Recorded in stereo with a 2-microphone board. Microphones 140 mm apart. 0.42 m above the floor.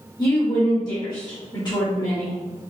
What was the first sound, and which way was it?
A woman speaking, 30° left (ahead or behind).